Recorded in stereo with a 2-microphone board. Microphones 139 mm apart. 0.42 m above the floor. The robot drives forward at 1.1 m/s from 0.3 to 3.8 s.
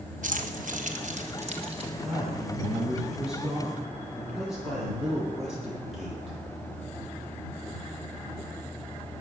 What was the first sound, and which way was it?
Keys jangling, 70° right (ahead or behind).